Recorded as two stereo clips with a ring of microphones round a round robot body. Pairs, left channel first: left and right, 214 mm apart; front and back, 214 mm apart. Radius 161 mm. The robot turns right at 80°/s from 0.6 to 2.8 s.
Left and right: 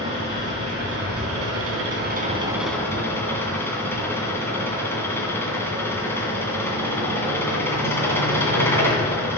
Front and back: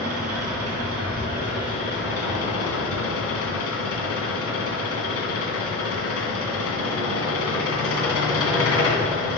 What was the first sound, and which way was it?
An engine running, 165° right.